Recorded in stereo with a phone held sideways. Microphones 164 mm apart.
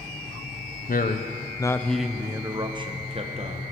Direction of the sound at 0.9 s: 60° left (ahead or behind).